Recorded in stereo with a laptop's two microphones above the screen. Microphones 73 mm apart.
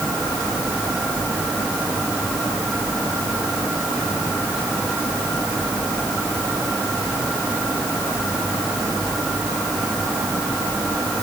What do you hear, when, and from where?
Only background noise.